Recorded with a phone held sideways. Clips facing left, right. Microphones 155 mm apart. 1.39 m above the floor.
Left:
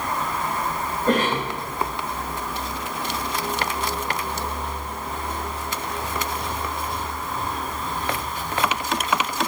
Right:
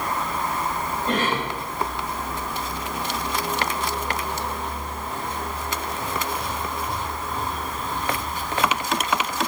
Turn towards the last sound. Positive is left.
turn(degrees=45)  # may be behind; listen again after turning